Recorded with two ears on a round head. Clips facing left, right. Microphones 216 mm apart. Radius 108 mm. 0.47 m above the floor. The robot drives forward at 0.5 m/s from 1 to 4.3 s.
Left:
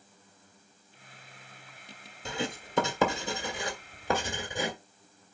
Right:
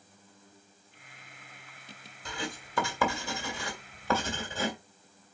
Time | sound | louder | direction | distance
2.2 | writing | left 4 dB | 25° left (ahead or behind) | 1.5 m